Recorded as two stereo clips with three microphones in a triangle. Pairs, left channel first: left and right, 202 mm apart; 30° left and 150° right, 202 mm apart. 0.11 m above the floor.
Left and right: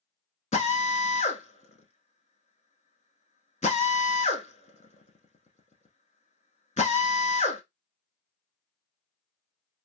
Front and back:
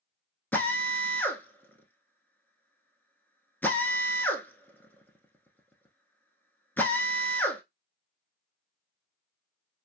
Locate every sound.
0.5 s a drill: 105° left, 0.6 m